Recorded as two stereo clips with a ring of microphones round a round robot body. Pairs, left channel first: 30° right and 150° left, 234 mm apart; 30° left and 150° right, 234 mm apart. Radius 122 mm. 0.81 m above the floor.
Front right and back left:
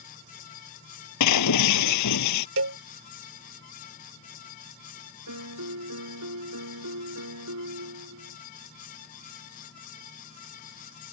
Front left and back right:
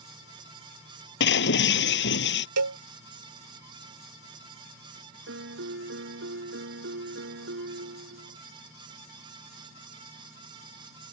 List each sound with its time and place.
1.2 s breaking glass: 15° right
2.6 s a cowbell: 175° right
5.3 s a piano: 170° left